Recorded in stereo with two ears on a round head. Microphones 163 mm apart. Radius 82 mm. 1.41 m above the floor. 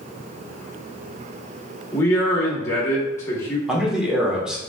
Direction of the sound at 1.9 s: 15° left (ahead or behind).